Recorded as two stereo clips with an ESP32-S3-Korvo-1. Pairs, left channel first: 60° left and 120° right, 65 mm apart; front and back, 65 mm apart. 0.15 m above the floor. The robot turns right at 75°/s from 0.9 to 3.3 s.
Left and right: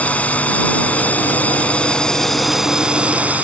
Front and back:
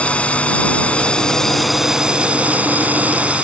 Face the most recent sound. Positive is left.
turn(degrees=-145)